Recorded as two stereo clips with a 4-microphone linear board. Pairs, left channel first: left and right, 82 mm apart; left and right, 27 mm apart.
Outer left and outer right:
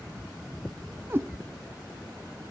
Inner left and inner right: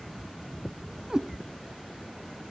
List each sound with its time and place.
1.1 s a cat meowing: 25° right (ahead or behind), 0.5 m